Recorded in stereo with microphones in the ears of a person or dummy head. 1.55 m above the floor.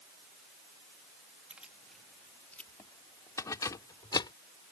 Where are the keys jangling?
5° right (ahead or behind); by 4.3 s 25° left (ahead or behind).